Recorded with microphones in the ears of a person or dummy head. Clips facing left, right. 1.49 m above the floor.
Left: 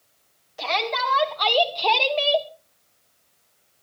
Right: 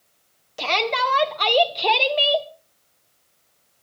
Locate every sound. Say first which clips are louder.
0.6 s a shout: right 3 dB; 45° right (ahead or behind), 2 m; by 2.5 s centre (ahead or behind), 1.3 m